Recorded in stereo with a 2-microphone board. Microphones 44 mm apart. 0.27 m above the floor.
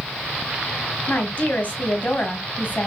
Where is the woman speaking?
40° left (ahead or behind), 1.3 m.